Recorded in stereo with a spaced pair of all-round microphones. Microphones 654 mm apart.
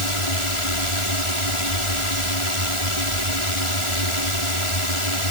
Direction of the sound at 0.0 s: 50° left (ahead or behind).